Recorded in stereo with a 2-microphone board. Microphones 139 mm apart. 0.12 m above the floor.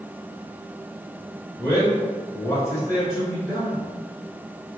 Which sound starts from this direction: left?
A man speaking, at 1.6 s.